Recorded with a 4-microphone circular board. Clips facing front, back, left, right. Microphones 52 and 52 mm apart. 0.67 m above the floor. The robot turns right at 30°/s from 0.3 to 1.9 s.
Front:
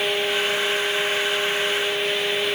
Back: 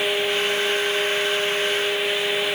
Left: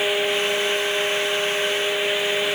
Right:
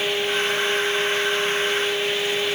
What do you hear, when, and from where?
Only background noise.